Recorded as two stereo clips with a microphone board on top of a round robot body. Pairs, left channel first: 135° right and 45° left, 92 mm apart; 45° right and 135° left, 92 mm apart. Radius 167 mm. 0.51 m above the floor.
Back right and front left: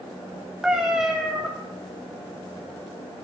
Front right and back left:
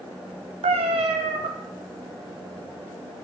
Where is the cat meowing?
130° left, 0.7 m.